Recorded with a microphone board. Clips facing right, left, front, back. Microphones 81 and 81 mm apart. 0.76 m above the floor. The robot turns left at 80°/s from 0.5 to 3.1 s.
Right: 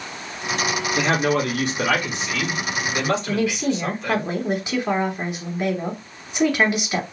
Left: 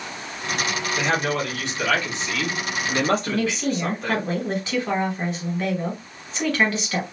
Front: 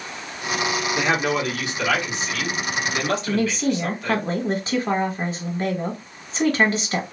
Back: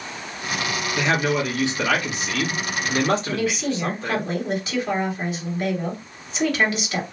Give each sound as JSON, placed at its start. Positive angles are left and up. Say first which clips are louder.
{"t": 1.0, "sound": "a man speaking", "louder": "right 3 dB, back 2 dB", "azimuth_deg": -60, "distance_m": 1.3}
{"t": 3.3, "sound": "a woman speaking", "louder": "right 2 dB, front 2 dB", "azimuth_deg": -25, "distance_m": 1.1}